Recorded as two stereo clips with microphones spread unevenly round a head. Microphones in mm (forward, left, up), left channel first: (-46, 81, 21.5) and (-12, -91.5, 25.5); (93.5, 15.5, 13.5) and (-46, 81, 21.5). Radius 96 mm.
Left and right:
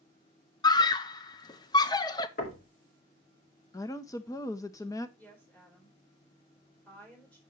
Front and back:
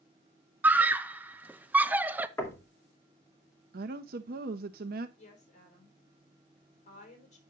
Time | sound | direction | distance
0.6 | a scream | 85° left | 0.6 m
2.4 | knocking | 50° left | 2 m
3.7 | a woman speaking | 170° left | 0.7 m
5.2 | a woman speaking | 15° left | 4 m